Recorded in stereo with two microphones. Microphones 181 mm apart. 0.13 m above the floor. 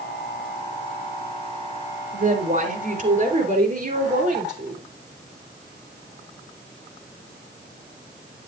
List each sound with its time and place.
2.1 s a woman speaking: 40° right (ahead or behind), 1.9 m